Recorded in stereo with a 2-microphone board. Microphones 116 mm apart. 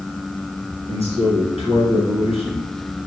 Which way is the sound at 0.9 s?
65° right (ahead or behind).